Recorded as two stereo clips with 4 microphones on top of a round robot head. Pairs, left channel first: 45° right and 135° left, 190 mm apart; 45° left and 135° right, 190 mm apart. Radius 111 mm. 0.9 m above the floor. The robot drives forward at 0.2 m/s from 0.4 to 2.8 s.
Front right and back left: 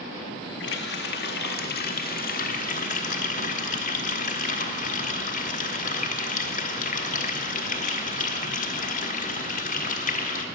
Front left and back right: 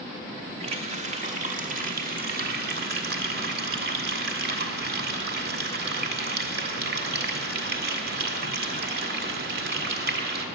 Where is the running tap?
75° right, 1.2 m; by 10.4 s 95° right, 1.1 m.